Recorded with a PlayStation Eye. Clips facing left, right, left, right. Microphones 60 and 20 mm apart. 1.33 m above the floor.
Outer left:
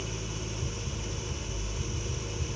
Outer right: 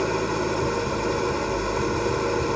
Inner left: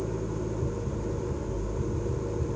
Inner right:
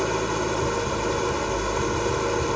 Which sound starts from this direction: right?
An engine running, at 0.0 s.